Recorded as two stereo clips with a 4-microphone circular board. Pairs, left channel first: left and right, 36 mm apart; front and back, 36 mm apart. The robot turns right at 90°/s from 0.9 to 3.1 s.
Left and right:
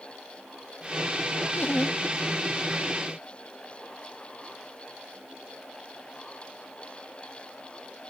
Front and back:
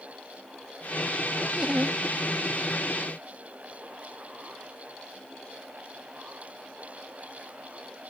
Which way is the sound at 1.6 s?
100° left.